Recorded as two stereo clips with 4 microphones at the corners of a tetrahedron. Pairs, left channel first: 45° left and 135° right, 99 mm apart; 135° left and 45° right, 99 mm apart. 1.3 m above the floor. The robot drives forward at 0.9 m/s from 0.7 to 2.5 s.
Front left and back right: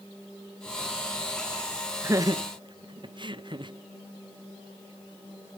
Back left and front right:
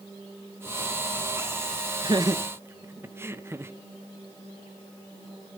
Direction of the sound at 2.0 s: 70° right.